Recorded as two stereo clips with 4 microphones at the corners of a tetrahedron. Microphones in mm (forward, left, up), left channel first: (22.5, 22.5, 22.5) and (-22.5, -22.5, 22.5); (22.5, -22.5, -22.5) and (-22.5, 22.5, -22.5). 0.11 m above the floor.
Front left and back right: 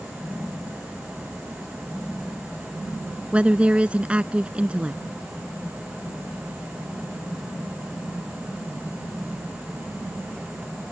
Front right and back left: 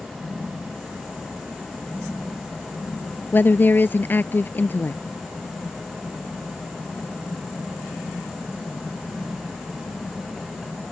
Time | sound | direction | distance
3.3 | a woman speaking | 75° right | ?